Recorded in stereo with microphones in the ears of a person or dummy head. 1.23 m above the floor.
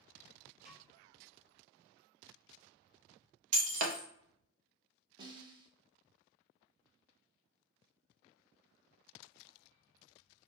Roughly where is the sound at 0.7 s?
Right.